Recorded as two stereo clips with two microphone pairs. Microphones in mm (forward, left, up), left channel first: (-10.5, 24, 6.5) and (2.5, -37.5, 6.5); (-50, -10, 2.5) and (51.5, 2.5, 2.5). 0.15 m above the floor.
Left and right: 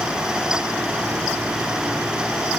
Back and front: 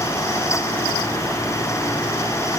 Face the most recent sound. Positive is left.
No sound to turn to.